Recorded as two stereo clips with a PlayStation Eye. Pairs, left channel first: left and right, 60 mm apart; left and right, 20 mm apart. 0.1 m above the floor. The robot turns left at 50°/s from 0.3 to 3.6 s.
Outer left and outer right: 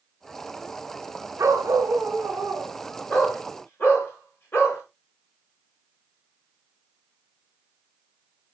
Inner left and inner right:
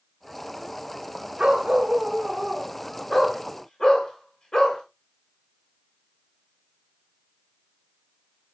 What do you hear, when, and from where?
1.4 s a dog barking: 110° right, 7 m; by 4.8 s 135° left, 7 m